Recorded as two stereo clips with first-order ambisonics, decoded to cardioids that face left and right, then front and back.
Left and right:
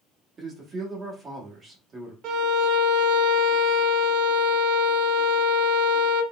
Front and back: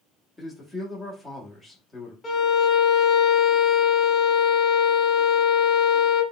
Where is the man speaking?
85° right, 0.9 m.